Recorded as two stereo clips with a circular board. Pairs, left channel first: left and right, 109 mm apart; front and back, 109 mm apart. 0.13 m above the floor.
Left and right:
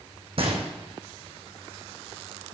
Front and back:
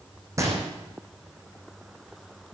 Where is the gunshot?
120° right, 2.5 m.